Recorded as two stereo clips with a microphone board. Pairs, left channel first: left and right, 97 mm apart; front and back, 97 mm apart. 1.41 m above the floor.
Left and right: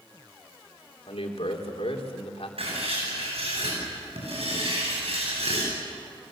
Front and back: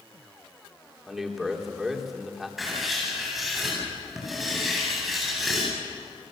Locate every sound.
1.1 s a man speaking: 95° left, 3 m
2.6 s writing: 95° right, 9.5 m